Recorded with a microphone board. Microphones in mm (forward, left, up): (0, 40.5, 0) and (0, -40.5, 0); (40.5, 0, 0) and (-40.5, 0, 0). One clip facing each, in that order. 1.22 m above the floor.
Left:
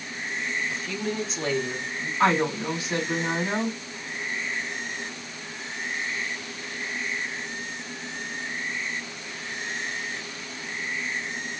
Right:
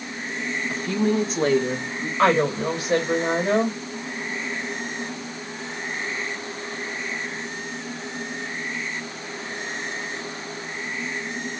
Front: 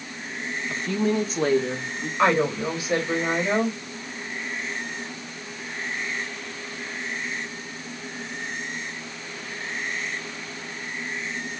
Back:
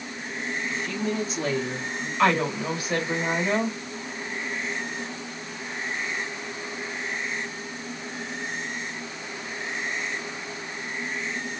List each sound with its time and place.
0.7 s a woman speaking: 45° right, 1.1 m; by 2.1 s 50° right, 2 m
2.2 s a woman speaking: 60° right, 2.5 m